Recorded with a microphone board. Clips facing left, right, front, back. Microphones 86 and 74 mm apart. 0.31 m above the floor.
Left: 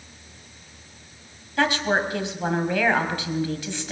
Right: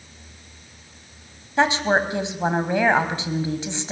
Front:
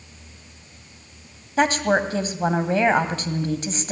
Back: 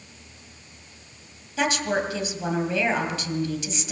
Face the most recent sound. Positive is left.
turn(degrees=-30)